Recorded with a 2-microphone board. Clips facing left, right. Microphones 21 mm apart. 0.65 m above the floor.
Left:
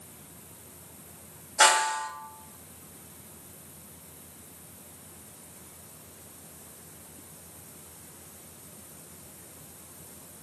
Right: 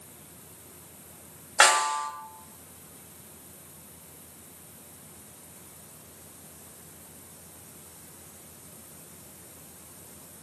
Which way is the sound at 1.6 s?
55° right (ahead or behind).